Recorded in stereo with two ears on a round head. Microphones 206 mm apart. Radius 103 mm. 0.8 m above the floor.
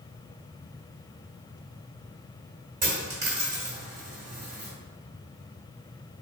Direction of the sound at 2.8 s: 35° right (ahead or behind).